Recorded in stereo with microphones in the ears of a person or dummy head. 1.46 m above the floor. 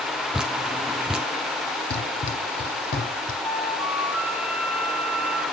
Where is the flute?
Centre (ahead or behind), 2 m.